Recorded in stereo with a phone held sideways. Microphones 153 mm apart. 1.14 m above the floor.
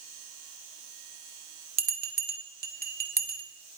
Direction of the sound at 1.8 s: 65° right (ahead or behind).